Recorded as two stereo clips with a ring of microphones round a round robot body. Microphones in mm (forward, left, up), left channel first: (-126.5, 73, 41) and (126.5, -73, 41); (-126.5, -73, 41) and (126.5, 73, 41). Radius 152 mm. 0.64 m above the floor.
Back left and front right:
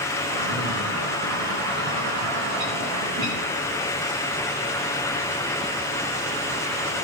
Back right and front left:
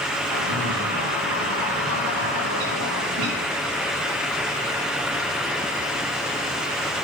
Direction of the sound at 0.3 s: 10° left.